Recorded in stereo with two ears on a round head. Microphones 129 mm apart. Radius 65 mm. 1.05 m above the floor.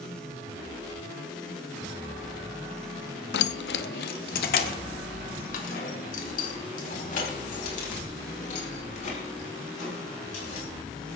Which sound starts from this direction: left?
Keys jangling, at 3.3 s.